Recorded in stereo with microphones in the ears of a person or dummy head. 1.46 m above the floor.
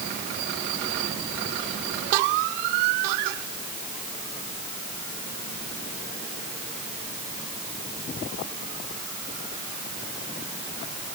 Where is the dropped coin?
No dropped coin in this recording.